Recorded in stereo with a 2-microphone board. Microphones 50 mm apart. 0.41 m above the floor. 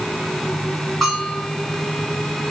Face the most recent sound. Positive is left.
turn(degrees=5)  # may be behind; listen again after turning